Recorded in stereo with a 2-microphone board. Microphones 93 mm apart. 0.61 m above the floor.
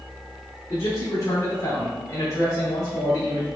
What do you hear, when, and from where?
0.7 s a man speaking: 40° left (ahead or behind), 2 m